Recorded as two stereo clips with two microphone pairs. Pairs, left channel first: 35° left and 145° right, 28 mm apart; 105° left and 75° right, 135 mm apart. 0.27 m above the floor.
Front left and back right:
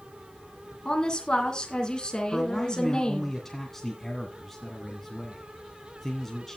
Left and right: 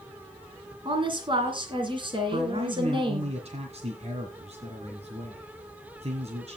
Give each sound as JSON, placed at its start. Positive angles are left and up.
{"t": 0.8, "sound": "a woman speaking", "azimuth_deg": -30, "distance_m": 3.0}
{"t": 2.3, "sound": "a man speaking", "azimuth_deg": -45, "distance_m": 2.0}